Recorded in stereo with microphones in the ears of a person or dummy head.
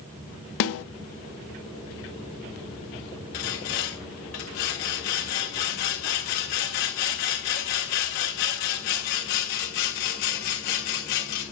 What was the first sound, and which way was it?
A snare drum, 60° left (ahead or behind).